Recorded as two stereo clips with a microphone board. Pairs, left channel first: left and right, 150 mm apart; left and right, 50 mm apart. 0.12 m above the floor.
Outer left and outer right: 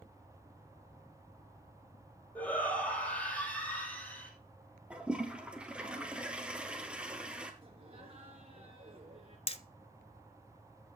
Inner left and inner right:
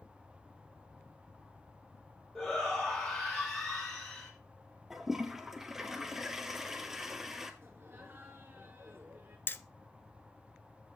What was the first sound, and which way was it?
A shout, 10° left (ahead or behind).